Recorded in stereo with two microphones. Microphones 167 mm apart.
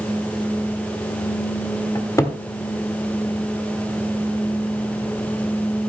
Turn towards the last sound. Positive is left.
turn(degrees=20)  # may be behind; listen again after turning